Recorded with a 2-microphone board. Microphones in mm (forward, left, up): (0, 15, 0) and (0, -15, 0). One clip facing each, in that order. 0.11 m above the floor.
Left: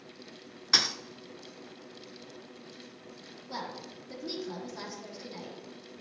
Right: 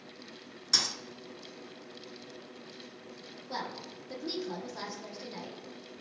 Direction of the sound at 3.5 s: 10° right (ahead or behind).